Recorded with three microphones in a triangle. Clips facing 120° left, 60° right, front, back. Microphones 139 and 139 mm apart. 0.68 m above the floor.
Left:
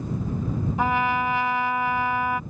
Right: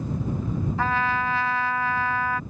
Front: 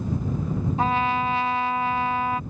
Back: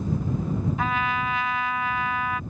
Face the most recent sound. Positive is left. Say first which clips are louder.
# left 3 dB, front 3 dB
turn(degrees=50)